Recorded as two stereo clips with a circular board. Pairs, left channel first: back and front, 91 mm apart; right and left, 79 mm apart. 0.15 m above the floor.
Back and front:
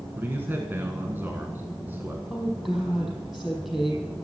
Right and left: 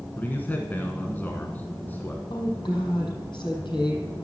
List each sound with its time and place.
0.2 s a man speaking: 45° right, 1.2 m
2.3 s a woman speaking: 85° right, 4.5 m